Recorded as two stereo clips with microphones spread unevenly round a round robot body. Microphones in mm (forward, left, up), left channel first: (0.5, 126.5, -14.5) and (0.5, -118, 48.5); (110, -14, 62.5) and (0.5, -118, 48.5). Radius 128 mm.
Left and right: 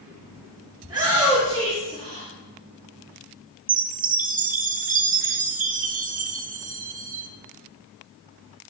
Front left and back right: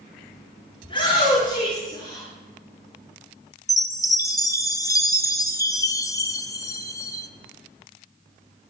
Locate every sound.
0.8 s a shout: 15° right, 6 m; by 2.3 s 20° right, 6.5 m
3.7 s a chime: 25° right, 1.1 m